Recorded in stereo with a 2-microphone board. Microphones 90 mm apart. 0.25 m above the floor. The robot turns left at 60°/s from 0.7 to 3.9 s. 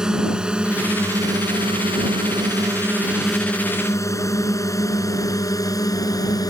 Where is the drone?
10° right (ahead or behind); by 6.5 s 40° left (ahead or behind).